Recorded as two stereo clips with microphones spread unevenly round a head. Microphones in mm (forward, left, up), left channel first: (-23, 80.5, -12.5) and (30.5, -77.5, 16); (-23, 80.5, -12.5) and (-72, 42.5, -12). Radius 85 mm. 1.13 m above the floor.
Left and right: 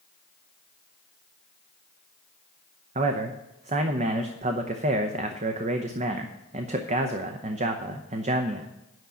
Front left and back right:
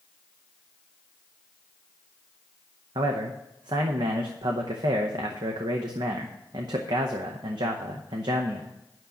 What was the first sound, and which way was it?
A man speaking, 125° right.